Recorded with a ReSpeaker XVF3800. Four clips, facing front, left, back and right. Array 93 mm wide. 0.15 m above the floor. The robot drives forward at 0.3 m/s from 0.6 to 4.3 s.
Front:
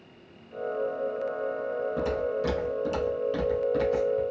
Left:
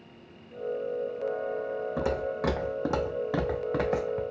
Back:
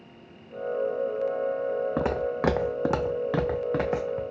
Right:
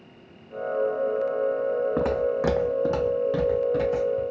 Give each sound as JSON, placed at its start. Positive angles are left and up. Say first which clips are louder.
{"t": 2.0, "sound": "footsteps", "louder": "right 6 dB, back 1 dB", "azimuth_deg": -145, "distance_m": 0.7}